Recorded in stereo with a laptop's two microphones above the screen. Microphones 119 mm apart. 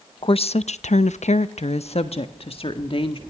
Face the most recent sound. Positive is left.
turn(degrees=50)  # may be behind; listen again after turning